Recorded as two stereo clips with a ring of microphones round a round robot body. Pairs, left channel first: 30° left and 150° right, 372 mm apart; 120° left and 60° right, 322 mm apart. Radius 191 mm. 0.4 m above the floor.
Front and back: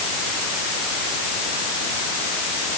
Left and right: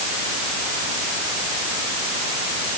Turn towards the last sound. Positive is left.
No sound to turn to.